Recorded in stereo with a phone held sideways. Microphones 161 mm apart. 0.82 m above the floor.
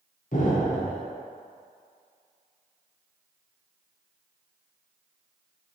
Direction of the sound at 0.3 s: 50° left (ahead or behind).